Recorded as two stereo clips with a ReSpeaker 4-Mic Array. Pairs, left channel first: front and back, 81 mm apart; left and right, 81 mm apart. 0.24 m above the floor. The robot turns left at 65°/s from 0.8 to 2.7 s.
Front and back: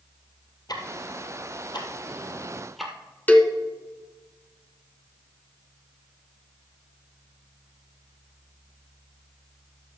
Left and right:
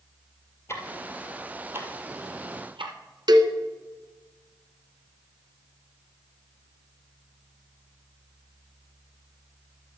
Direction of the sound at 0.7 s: 35° left.